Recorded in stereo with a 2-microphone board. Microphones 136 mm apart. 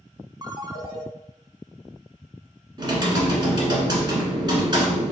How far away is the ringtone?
About 0.6 m.